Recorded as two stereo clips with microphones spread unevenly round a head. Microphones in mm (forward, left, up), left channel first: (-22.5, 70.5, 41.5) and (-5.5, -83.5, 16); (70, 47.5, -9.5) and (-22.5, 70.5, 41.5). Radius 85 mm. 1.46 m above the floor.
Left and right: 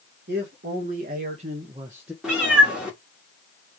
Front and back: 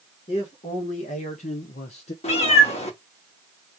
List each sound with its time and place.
0.3 s a man speaking: 55° right, 1.7 m; by 2.1 s 5° left, 0.8 m
2.2 s a cat meowing: 5° left, 2 m